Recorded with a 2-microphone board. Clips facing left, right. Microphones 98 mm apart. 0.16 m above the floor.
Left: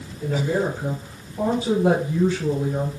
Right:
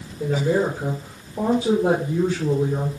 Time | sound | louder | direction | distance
0.2 | a woman speaking | right 2 dB | 65° right (ahead or behind) | 3.5 m